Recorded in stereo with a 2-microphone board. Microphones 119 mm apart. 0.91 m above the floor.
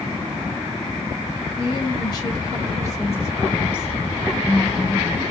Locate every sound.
1.6 s a woman speaking: 45° left (ahead or behind), 1.5 m; by 5.2 s 10° left (ahead or behind), 3.5 m